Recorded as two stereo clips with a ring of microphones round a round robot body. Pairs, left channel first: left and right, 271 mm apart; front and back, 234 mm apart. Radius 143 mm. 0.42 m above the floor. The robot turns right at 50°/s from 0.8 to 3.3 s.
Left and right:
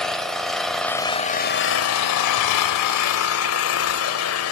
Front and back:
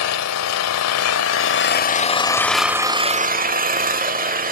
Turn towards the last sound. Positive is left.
turn(degrees=125)